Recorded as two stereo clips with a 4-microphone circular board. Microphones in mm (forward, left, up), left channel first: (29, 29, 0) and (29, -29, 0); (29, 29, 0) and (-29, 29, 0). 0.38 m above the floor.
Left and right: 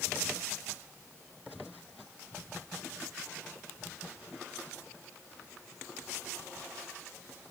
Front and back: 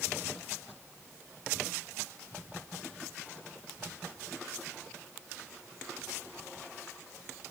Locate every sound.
Only background noise.